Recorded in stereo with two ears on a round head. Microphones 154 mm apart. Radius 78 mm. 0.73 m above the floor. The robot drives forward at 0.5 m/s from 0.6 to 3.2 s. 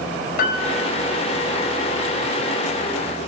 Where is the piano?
55° left (ahead or behind), 5 m.